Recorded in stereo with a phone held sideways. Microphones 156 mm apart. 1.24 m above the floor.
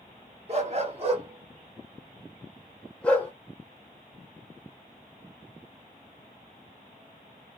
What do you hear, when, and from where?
0.5 s a dog barking: 40° right (ahead or behind), 1.1 m; by 3.3 s 15° left (ahead or behind), 0.9 m